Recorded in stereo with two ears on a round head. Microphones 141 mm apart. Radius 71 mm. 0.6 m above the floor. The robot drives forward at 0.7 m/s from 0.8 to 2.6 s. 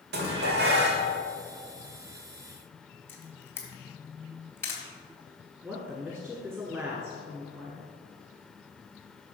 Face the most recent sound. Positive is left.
turn(degrees=-15)  # may be behind; listen again after turning